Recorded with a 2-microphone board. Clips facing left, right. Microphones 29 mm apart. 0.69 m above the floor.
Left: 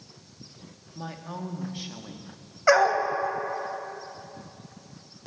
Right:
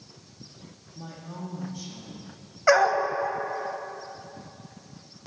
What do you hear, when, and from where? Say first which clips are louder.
0.9 s a woman speaking: left 3 dB; 45° left (ahead or behind), 1.1 m
2.7 s a dog barking: even; 5° left (ahead or behind), 0.8 m